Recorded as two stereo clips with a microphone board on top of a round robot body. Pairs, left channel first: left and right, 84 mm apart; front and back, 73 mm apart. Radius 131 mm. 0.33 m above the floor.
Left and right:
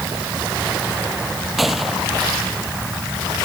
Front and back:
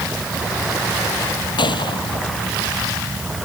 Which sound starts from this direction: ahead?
A gunshot, at 1.6 s.